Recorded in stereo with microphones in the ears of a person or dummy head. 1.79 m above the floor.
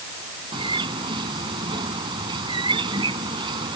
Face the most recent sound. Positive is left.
turn(degrees=-30)  # may be behind; listen again after turning